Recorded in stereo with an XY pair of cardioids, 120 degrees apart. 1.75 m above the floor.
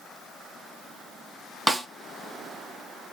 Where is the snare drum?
5° right, 0.9 m.